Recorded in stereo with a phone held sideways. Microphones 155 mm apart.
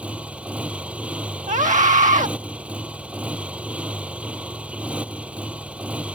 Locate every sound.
0.0 s a motorcycle: 10° right (ahead or behind)
1.5 s a scream: 55° right (ahead or behind)